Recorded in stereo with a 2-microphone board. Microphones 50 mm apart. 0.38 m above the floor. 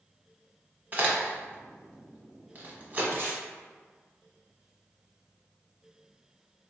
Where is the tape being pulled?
50° right (ahead or behind), 1.0 m.